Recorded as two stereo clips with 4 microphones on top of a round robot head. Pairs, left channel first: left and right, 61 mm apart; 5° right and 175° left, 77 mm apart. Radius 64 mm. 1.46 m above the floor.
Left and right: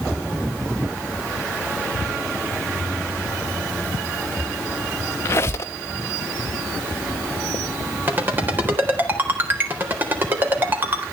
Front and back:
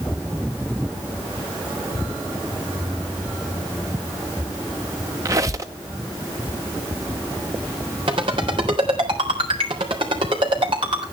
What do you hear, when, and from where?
5.2 s a squeak: 130° left, 0.8 m
8.1 s a ringtone: 150° right, 3.5 m